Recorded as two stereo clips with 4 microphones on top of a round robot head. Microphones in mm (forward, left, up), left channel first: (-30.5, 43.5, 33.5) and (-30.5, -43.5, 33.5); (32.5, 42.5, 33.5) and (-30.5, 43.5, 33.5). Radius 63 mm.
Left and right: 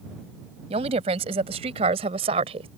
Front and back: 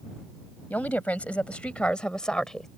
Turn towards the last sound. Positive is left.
turn(degrees=-85)